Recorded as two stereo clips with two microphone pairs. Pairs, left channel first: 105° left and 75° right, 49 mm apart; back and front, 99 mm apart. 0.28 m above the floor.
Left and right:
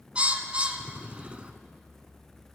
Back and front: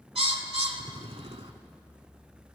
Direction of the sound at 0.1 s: 15° right.